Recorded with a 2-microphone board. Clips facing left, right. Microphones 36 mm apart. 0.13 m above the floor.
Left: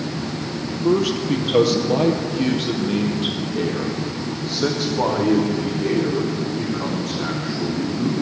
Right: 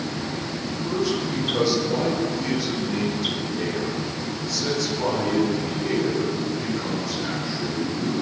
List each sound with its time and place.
0.8 s a man speaking: 65° left (ahead or behind), 3.5 m; by 8.1 s 60° left (ahead or behind), 8 m